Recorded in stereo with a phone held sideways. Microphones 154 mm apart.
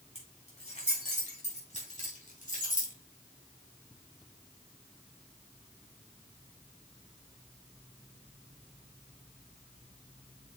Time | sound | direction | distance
0.1 | keys jangling | 45° left (ahead or behind) | 4.5 m